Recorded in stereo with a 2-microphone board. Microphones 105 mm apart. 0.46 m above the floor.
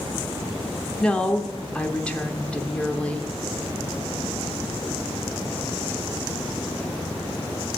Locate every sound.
1.0 s a woman speaking: 10° left (ahead or behind), 0.8 m